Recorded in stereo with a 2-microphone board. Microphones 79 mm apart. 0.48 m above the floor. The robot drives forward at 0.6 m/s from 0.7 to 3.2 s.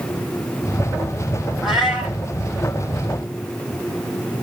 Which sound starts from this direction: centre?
A cat meowing, at 1.6 s.